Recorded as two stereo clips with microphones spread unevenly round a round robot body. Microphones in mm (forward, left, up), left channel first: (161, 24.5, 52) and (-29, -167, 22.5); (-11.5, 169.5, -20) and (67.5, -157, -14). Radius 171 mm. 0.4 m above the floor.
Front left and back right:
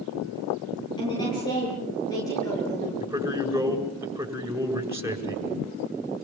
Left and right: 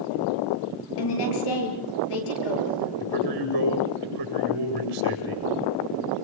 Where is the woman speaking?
125° left, 8.5 m; by 2.9 s 130° left, 9 m.